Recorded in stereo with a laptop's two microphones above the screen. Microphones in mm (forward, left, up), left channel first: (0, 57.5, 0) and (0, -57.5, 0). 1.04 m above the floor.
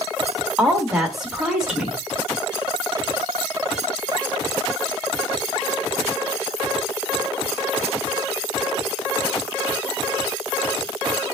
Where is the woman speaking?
5° right (ahead or behind), 1.7 m.